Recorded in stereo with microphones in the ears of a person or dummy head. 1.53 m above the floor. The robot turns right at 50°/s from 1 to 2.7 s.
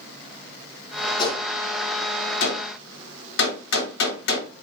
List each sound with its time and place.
1.2 s a gunshot: 25° left (ahead or behind), 1.3 m; by 4.5 s 60° left (ahead or behind), 1.3 m